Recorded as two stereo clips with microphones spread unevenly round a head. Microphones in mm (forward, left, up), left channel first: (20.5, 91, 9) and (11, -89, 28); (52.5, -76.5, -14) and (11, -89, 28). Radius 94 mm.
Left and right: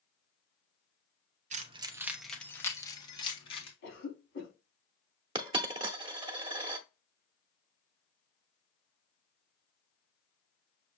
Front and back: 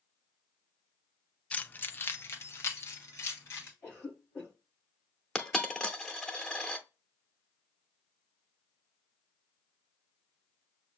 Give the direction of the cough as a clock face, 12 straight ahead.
10 o'clock.